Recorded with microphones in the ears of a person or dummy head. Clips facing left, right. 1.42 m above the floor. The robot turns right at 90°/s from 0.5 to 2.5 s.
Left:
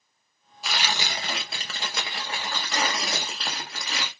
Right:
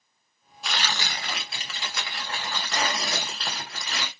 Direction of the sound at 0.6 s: Straight ahead.